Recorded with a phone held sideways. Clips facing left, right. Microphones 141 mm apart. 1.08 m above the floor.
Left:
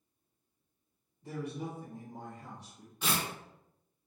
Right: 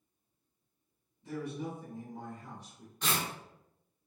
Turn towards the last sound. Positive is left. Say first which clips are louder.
# even
turn(degrees=10)  # may be behind; listen again after turning